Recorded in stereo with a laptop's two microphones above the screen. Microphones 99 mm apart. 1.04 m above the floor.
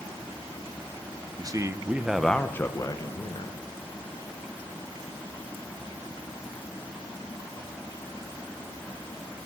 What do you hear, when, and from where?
1.4 s a man speaking: 40° right (ahead or behind), 0.7 m; by 3.6 s 55° left (ahead or behind), 1.0 m